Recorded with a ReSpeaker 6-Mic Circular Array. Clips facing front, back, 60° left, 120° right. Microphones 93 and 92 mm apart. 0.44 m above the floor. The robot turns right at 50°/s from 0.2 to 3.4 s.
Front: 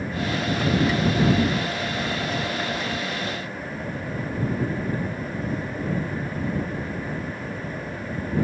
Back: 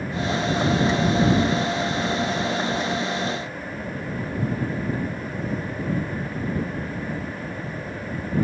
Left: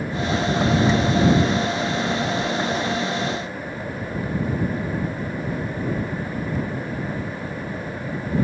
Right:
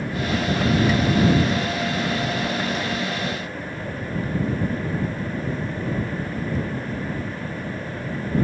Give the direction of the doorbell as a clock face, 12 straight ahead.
I don't hear a doorbell.